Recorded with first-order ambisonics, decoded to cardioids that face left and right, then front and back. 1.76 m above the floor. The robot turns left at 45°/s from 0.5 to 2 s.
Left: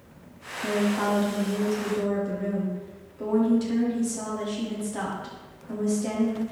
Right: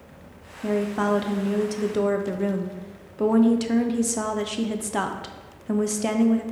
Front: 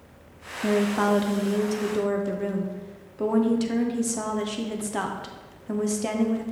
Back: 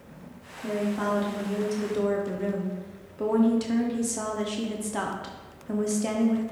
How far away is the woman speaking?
About 0.6 m.